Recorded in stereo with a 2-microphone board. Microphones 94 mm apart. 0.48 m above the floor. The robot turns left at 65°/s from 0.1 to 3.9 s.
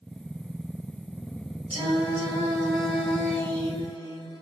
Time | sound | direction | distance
1.7 | singing | 90° right | 1.7 m